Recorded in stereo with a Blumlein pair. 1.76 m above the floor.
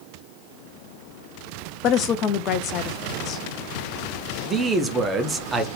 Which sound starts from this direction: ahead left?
A woman speaking, at 1.8 s.